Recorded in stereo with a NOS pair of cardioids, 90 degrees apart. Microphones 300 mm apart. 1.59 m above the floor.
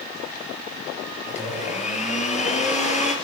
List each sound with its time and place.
1.3 s a blender: 25° left, 7.5 m